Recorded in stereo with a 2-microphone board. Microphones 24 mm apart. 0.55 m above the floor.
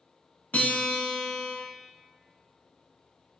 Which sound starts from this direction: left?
A guitar, at 0.5 s.